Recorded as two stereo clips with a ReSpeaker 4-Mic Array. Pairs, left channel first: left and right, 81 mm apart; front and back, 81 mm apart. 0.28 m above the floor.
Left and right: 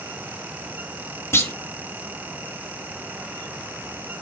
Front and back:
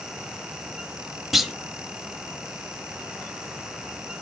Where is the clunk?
95° left, 1.1 m.